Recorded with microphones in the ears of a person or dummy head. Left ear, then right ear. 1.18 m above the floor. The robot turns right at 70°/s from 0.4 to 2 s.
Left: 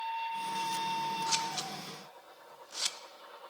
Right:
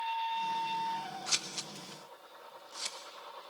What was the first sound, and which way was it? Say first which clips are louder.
Scissors: left 2 dB; 5° right (ahead or behind).